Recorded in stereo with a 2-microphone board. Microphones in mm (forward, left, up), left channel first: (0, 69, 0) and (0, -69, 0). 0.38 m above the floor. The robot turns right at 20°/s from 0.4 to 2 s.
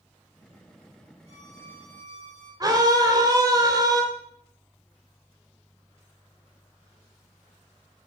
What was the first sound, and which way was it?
A violin, 55° right (ahead or behind).